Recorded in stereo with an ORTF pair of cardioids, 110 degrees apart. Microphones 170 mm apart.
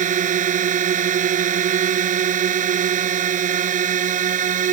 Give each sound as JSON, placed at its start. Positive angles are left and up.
{"t": 0.0, "sound": "a drone", "azimuth_deg": -50}